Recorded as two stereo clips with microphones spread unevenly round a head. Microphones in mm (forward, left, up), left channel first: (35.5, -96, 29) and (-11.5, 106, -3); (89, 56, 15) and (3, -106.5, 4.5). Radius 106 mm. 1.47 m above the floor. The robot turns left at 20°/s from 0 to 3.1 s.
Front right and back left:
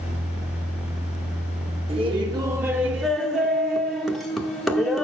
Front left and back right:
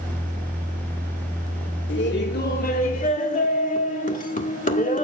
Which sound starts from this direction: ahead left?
Laughter, at 1.9 s.